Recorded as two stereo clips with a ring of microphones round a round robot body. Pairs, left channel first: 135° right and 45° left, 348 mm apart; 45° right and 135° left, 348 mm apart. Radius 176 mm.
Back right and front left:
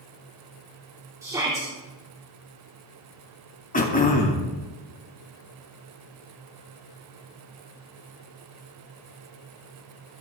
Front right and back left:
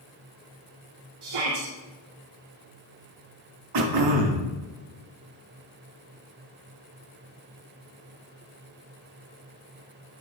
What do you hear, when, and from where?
1.2 s a shout: 125° left, 2.5 m
3.7 s throat clearing: 160° left, 2.5 m